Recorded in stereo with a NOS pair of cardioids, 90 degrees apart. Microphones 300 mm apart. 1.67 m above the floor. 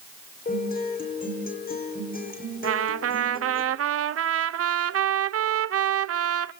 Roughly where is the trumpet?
Ahead right.